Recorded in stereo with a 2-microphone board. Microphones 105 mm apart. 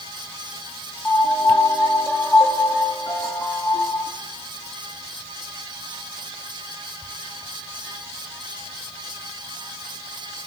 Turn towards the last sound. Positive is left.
turn(degrees=15)  # may be behind; listen again after turning